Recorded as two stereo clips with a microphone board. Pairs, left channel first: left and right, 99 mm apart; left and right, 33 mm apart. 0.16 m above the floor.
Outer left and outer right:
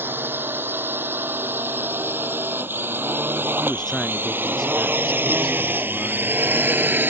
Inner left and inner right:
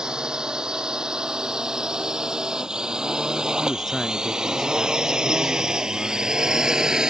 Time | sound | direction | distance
0.0 | a drone | 20° right (ahead or behind) | ?
3.6 | a man speaking | 5° left (ahead or behind) | ?